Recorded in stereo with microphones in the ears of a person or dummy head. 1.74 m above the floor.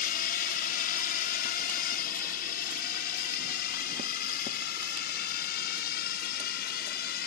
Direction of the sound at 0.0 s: 50° left (ahead or behind).